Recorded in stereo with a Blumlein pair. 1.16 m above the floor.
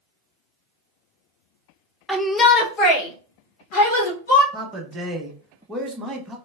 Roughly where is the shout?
Ahead.